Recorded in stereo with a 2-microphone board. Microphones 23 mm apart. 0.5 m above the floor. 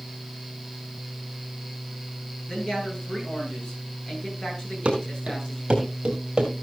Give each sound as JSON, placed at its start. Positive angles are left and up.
{"t": 2.5, "sound": "a man speaking", "side_deg": 35, "distance_m": 9.0}
{"t": 4.8, "sound": "running footsteps", "side_deg": -55, "distance_m": 3.5}